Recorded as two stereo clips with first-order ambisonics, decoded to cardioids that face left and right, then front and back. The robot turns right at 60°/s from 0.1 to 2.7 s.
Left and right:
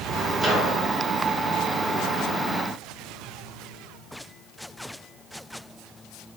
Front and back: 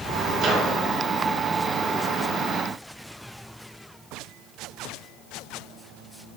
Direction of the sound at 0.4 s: 165° right.